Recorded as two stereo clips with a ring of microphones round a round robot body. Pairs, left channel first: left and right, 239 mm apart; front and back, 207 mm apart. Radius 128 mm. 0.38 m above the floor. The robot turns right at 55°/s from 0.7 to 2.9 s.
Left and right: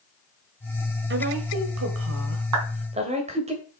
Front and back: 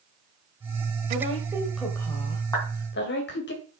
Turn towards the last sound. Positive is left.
turn(degrees=-55)